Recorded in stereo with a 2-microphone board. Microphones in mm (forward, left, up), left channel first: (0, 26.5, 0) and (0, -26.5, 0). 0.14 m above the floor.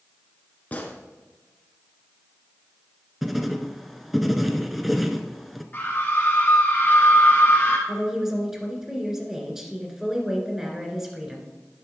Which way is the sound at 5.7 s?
35° left (ahead or behind).